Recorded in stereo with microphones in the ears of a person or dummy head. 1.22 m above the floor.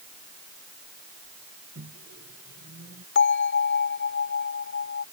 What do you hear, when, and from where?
1.8 s a microwave: 60° right (ahead or behind)
3.1 s a bell: 60° left (ahead or behind)